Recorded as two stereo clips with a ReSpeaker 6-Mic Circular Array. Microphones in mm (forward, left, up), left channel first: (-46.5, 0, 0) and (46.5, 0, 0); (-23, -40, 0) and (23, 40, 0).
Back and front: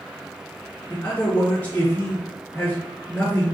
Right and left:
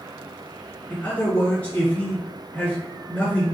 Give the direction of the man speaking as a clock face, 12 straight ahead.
5 o'clock.